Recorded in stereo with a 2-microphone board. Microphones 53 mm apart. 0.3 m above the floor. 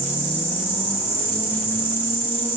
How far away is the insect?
About 1.3 m.